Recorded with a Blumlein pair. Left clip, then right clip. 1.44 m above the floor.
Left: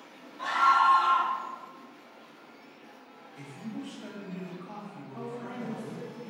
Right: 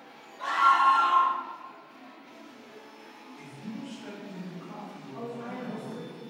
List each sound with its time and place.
0.4 s a scream: 50° left, 1.4 m
3.4 s a man speaking: 40° left, 1.2 m
5.1 s a woman speaking: 55° left, 1.1 m